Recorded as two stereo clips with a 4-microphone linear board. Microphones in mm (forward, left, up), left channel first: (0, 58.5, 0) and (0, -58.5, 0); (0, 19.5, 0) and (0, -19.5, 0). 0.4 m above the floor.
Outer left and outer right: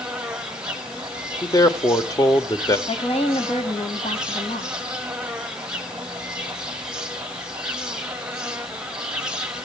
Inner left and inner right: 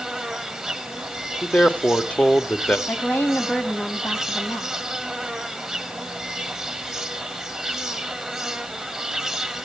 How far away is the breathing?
I don't hear breathing.